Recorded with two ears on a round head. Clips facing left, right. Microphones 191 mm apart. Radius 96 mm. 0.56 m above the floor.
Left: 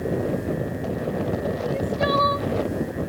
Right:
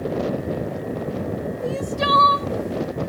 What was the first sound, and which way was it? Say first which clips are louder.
Crying: right 1 dB; 60° right (ahead or behind).